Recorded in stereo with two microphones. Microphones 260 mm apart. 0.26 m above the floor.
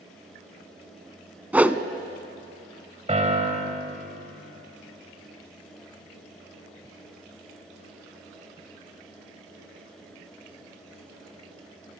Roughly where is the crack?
No crack in this recording.